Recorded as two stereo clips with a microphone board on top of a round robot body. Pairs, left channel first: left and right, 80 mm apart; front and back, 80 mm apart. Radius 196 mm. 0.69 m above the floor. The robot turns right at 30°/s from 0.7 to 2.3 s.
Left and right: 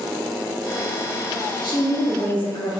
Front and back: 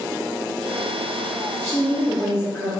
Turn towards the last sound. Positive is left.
turn(degrees=100)